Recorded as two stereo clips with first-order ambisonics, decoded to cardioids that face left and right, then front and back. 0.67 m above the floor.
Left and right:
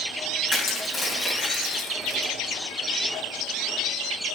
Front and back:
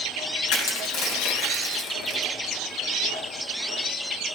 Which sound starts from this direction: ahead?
Crushing, at 0.5 s.